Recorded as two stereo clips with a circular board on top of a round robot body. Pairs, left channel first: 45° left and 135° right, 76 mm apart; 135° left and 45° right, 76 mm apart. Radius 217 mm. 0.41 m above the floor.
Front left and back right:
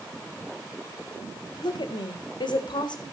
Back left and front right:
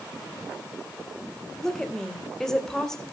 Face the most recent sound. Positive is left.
turn(degrees=50)